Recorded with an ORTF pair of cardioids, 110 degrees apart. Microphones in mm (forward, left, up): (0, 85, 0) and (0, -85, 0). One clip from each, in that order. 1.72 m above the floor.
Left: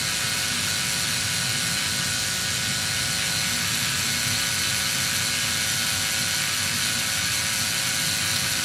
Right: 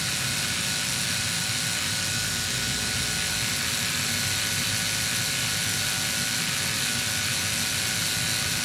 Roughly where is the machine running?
Ahead.